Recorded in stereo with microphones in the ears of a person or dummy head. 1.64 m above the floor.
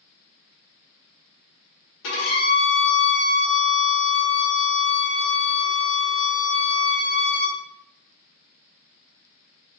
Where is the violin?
80° left, 1.9 m.